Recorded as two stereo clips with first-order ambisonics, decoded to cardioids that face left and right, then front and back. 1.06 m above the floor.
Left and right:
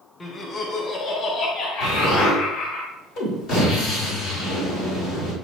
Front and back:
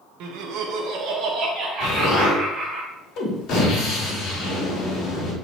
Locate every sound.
0.2 s laughter: 160° left, 1.2 m; by 2.8 s 115° left, 2 m
1.8 s an explosion: 40° left, 3 m